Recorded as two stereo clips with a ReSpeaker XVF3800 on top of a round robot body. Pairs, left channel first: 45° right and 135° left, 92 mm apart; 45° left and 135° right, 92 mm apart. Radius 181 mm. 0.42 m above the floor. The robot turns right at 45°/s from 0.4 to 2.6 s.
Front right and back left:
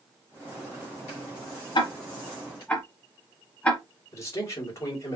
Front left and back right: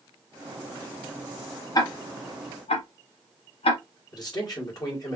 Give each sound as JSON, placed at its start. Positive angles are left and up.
{"t": 1.8, "sound": "ticking", "azimuth_deg": -5, "distance_m": 0.9}
{"t": 4.1, "sound": "a man speaking", "azimuth_deg": 10, "distance_m": 2.5}